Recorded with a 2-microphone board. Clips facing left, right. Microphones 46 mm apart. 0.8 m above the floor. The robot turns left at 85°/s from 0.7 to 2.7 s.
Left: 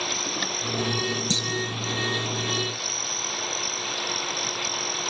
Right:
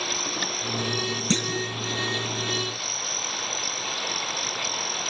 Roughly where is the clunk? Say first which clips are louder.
Right 1 dB; right.